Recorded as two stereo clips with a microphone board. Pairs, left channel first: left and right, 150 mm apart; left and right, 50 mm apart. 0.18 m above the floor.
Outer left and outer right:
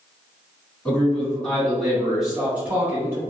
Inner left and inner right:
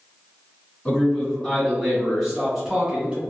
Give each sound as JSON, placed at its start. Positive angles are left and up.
{"t": 0.8, "sound": "a man speaking", "side_deg": 15, "distance_m": 1.9}